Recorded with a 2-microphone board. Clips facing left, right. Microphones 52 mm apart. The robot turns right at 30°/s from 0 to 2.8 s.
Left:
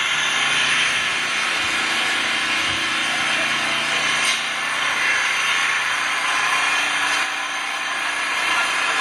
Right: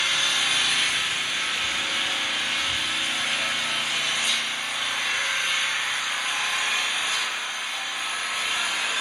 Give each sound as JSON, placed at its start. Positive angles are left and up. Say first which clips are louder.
{"t": 0.0, "sound": "an engine running", "louder": "left 4 dB", "azimuth_deg": 30, "distance_m": 0.7}